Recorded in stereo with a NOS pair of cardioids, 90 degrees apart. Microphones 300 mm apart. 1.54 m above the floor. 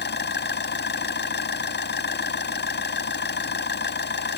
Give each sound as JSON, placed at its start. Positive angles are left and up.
{"t": 0.0, "sound": "an engine running", "azimuth_deg": 35}